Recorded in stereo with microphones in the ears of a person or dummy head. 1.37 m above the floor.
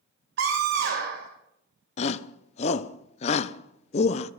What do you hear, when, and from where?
0.4 s a scream: 75° right (ahead or behind), 3 m
2.0 s a shout: 40° left (ahead or behind), 0.6 m